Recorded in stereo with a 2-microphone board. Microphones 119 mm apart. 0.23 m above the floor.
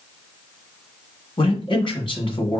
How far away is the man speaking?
About 1.5 m.